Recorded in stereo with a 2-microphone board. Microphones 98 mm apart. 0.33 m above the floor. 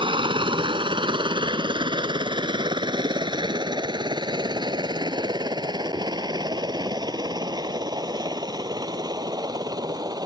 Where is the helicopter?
55° right (ahead or behind); by 10.3 s 40° right (ahead or behind).